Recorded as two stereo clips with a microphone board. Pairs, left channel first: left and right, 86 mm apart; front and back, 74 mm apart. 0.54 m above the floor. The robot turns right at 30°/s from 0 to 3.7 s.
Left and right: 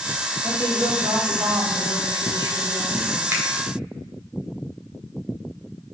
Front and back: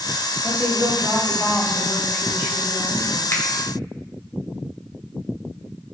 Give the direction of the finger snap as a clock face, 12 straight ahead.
1 o'clock.